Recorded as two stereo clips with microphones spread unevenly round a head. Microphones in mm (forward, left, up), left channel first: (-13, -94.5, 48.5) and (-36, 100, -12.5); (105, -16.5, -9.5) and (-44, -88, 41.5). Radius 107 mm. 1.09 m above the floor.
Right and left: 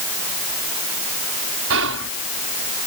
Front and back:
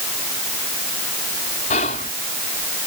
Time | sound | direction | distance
1.7 | whispering | 80° left | ?